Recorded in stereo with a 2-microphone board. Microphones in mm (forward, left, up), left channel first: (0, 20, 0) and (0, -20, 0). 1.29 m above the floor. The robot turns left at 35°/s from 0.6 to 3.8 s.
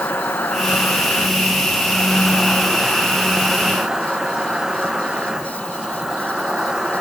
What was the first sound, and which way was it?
An insect, 95° left.